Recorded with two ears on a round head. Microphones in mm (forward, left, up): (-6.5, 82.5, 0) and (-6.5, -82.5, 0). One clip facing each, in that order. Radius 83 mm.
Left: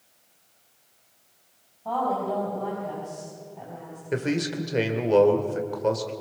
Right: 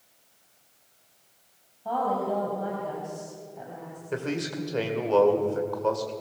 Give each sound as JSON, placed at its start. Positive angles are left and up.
{"t": 1.9, "sound": "a woman speaking", "side_deg": -10, "distance_m": 4.5}
{"t": 4.1, "sound": "a man speaking", "side_deg": 20, "distance_m": 2.0}